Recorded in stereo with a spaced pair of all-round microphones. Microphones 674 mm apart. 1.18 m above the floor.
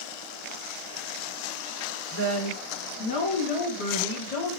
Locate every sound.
2.1 s a woman speaking: 20° left (ahead or behind), 1.8 m; by 4.6 s 60° left (ahead or behind), 1.1 m